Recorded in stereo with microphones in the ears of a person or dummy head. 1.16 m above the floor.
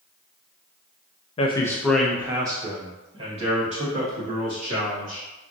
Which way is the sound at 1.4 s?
30° left (ahead or behind).